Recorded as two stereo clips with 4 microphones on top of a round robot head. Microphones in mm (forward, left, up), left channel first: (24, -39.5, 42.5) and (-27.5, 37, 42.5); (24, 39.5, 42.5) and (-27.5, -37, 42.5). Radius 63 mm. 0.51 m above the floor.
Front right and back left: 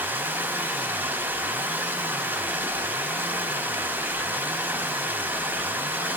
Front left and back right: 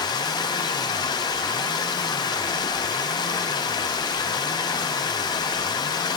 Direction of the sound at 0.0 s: 60° left.